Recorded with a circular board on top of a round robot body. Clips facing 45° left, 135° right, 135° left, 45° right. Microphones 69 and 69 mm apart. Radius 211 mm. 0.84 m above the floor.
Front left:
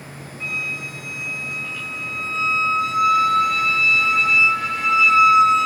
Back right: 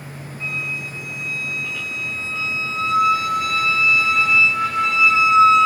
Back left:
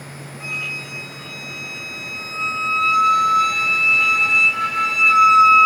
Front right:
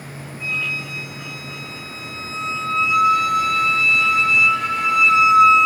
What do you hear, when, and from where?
0.4 s a flute: 105° left, 3 m